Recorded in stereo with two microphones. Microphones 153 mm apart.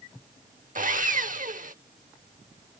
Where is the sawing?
60° right (ahead or behind).